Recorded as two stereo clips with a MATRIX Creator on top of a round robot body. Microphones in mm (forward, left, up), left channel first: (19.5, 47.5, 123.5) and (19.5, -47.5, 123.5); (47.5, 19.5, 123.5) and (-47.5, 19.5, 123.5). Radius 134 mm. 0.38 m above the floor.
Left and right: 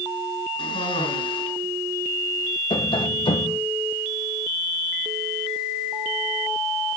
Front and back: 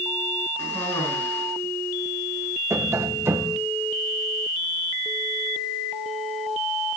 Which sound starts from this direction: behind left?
Tapping, at 2.7 s.